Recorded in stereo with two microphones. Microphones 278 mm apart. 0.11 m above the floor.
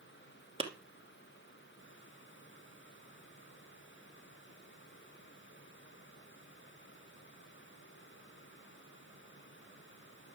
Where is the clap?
20° right (ahead or behind), 2 m.